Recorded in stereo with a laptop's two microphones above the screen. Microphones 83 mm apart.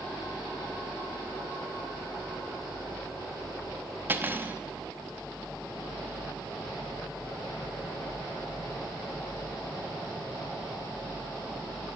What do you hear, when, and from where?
4.1 s cutlery clinking: 25° right (ahead or behind), 1.0 m